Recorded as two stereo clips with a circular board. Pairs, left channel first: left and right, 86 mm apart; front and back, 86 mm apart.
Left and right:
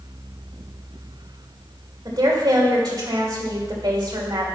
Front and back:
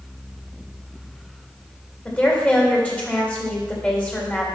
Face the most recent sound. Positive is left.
turn(degrees=-70)